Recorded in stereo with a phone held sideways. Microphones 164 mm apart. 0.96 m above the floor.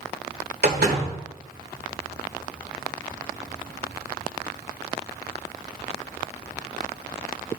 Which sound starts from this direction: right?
A door slam, at 0.6 s.